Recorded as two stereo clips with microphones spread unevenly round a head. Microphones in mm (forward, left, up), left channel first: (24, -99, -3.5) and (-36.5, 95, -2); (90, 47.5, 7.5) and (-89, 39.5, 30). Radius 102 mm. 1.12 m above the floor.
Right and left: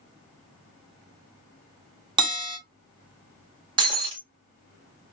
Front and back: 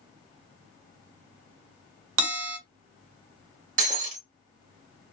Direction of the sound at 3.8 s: 165° left.